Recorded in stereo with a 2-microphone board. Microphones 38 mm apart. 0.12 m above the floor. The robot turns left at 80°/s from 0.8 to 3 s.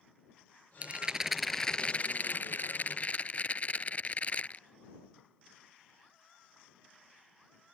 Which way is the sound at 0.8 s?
130° right.